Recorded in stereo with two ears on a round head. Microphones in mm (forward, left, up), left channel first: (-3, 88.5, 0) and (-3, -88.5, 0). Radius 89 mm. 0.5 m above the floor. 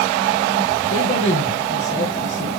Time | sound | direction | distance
0.9 | a man speaking | 35° left (ahead or behind) | 7 m